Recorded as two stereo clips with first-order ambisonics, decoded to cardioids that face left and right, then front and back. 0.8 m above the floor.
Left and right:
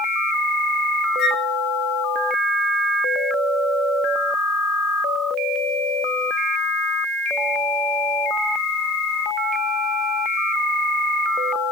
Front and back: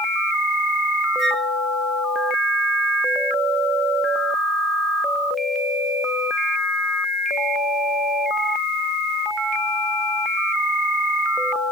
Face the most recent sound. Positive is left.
turn(degrees=120)